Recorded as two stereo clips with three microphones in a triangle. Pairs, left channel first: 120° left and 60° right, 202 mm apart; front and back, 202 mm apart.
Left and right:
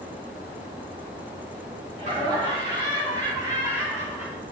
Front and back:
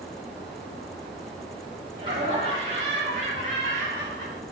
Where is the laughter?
115° right, 3.5 m; by 4.4 s 150° right, 1.9 m.